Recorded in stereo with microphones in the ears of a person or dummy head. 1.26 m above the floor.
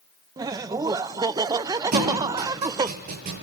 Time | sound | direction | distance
0.4 | laughter | 20° right (ahead or behind) | 0.6 m
1.9 | a thud | 50° right (ahead or behind) | 7 m